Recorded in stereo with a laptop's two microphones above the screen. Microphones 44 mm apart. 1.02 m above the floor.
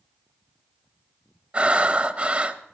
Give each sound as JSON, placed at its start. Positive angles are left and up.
{"t": 1.5, "sound": "breathing", "side_deg": -25, "distance_m": 0.8}